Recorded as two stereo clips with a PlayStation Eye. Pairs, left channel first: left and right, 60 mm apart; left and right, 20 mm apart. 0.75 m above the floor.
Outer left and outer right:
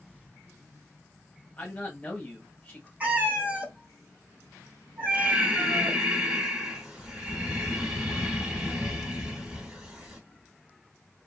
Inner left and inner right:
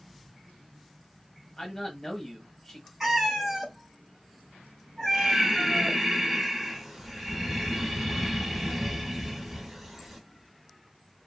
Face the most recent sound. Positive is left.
turn(degrees=-15)  # may be behind; listen again after turning